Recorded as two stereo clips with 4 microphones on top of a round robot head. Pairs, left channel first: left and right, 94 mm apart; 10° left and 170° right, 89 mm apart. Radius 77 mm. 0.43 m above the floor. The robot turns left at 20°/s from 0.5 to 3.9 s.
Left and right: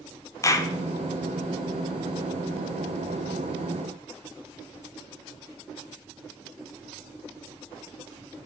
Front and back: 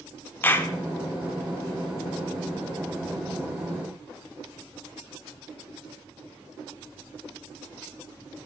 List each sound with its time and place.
0.4 s a clap: 65° left, 1.1 m; by 0.7 s 60° left, 1.1 m